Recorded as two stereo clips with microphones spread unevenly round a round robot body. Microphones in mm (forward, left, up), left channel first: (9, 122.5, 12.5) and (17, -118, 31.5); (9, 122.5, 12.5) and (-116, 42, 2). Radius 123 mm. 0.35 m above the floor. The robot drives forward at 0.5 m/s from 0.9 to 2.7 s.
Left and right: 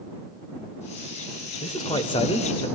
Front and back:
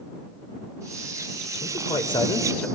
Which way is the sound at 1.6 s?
35° left.